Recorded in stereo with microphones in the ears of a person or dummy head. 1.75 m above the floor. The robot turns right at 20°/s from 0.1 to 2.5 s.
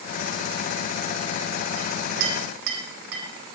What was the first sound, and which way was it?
A clink, 60° right (ahead or behind).